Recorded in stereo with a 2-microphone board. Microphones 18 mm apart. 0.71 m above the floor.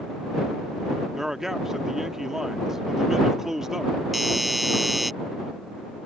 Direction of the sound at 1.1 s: 20° right (ahead or behind).